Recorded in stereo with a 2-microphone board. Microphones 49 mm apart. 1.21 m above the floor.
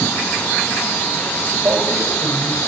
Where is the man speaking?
60° right (ahead or behind), 5 m.